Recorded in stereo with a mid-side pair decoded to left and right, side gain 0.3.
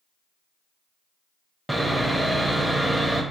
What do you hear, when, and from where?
1.7 s sawing: 15° right, 0.6 m